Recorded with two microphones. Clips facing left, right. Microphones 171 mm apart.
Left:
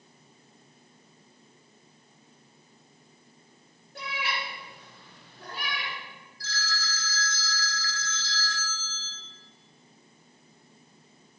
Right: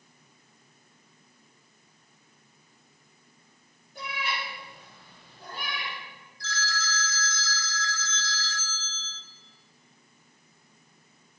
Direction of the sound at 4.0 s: 75° left (ahead or behind).